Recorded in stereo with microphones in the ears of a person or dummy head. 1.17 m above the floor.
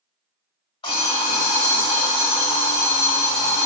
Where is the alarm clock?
35° left (ahead or behind), 2.0 m.